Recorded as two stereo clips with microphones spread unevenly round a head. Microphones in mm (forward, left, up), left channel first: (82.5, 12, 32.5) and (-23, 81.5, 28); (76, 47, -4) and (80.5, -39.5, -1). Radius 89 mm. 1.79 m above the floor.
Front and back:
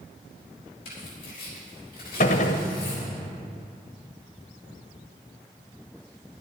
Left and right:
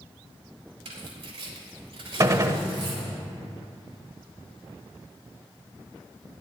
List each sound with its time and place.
0.8 s tearing paper: 95° right, 3.5 m
2.2 s a gunshot: 50° right, 1.1 m